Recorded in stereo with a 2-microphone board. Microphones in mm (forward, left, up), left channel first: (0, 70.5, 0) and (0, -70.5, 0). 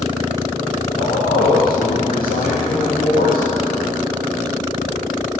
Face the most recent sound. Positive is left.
turn(degrees=85)